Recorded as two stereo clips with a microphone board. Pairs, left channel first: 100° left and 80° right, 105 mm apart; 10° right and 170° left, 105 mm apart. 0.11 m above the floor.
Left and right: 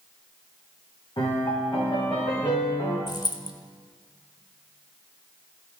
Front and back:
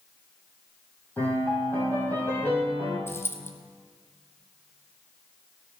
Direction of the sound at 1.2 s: 60° left.